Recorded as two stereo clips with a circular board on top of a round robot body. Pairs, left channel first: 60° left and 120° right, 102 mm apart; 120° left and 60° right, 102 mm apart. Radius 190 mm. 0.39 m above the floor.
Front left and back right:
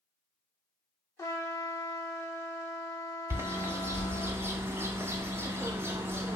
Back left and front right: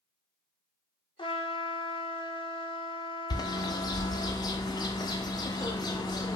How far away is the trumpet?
About 1.1 m.